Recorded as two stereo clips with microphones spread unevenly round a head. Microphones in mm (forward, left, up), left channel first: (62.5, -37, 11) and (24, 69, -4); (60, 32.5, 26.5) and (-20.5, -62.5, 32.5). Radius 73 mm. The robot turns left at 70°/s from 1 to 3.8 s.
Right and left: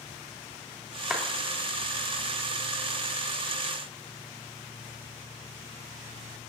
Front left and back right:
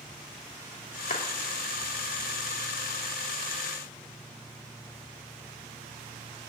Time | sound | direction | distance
1.1 | a clap | 25° left | 3 m